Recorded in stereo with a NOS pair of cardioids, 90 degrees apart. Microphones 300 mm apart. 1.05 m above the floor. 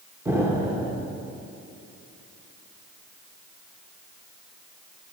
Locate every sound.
0.2 s an explosion: 10° right, 1.1 m